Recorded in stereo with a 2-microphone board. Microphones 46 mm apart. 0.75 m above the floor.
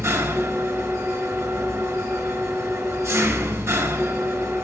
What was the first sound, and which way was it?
An engine running, 80° right.